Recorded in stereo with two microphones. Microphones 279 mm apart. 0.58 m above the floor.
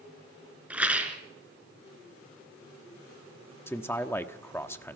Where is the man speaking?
10° left (ahead or behind), 1.1 m.